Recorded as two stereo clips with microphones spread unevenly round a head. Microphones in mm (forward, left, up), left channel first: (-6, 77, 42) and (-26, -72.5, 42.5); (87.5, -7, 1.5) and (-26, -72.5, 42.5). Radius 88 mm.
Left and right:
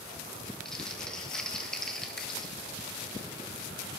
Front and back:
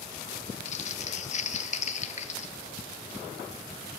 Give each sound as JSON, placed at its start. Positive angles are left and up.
{"t": 0.7, "sound": "crumpling", "azimuth_deg": -5, "distance_m": 1.1}